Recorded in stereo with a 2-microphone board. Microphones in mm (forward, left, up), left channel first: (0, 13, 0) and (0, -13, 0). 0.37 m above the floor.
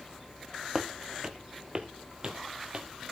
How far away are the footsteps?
About 1.0 m.